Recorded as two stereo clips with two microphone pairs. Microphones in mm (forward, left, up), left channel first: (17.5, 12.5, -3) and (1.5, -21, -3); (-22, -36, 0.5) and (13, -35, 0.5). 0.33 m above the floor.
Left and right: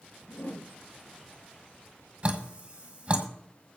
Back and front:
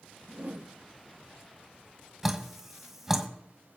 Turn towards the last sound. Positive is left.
turn(degrees=-70)